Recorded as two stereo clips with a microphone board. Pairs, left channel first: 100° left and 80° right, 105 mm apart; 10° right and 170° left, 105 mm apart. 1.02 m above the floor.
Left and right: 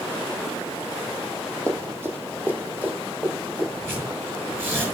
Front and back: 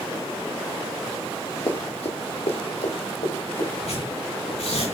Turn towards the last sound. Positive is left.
turn(degrees=-10)